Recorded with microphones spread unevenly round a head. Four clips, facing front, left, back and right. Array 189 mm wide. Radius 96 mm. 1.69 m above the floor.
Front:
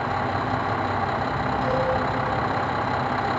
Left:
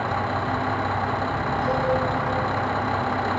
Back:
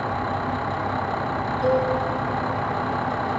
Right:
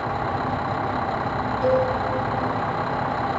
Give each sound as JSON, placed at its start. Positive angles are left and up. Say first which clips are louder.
{"t": 1.6, "sound": "a cowbell", "louder": "right 7 dB, back 5 dB", "azimuth_deg": -120, "distance_m": 8.0}